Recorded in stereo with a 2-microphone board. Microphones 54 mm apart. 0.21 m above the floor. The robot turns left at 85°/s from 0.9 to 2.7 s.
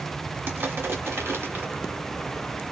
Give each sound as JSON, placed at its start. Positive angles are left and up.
{"t": 0.5, "sound": "crushing", "side_deg": -45, "distance_m": 1.5}